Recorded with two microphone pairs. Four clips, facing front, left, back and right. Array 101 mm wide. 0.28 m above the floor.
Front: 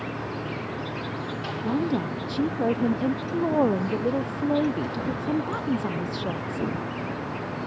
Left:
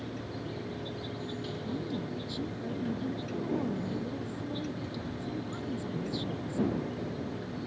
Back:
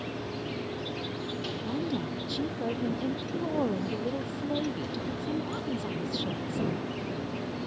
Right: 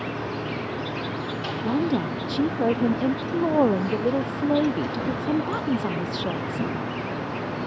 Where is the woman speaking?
60° right.